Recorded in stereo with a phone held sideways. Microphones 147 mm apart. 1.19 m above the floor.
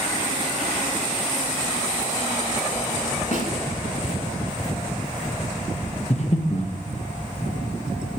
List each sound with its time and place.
3.3 s a snare drum: 55° left (ahead or behind), 5.5 m
6.1 s breathing: 50° left (ahead or behind), 1.2 m